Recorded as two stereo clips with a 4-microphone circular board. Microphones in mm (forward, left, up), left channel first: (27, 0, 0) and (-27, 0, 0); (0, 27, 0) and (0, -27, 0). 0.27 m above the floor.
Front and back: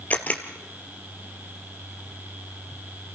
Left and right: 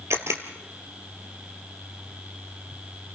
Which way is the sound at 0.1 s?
60° right.